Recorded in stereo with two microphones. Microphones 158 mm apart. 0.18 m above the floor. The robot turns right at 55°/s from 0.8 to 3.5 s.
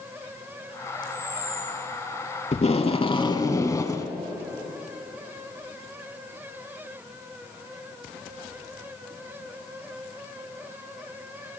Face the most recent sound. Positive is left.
turn(degrees=150)